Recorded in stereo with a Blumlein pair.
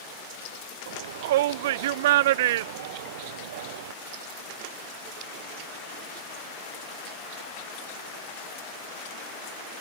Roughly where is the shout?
Ahead right.